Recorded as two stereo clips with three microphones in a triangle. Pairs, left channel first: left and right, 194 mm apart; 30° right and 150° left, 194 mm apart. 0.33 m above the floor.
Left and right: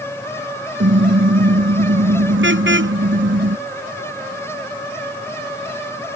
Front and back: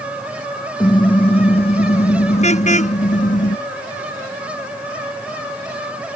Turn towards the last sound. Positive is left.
turn(degrees=-80)